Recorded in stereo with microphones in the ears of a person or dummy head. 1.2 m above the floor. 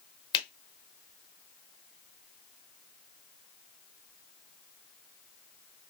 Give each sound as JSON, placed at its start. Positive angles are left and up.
{"t": 0.3, "sound": "a finger snap", "side_deg": 25, "distance_m": 0.8}